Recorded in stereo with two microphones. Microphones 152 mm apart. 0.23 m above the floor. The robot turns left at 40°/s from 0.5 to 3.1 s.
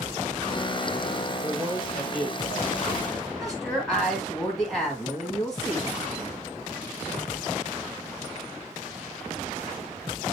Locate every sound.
1.4 s a man speaking: 45° right, 5.5 m; by 3.3 s 115° right, 5.5 m
3.4 s a woman speaking: centre (ahead or behind), 1.8 m